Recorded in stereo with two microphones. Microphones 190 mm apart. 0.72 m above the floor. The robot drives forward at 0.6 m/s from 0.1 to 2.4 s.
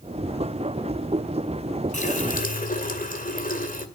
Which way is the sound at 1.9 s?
40° left (ahead or behind).